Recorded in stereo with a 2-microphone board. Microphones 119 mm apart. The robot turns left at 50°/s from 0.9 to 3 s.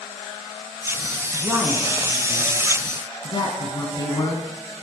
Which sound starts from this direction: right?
A woman speaking, at 1.3 s.